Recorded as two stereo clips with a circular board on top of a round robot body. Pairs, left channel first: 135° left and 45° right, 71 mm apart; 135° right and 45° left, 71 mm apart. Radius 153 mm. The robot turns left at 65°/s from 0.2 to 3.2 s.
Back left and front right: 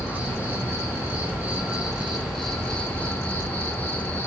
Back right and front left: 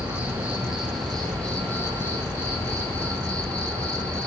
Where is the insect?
5° left, 1.9 m; by 4.3 s 170° left, 1.9 m.